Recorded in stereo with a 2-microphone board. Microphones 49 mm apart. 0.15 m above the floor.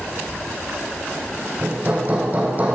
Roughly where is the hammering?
Right.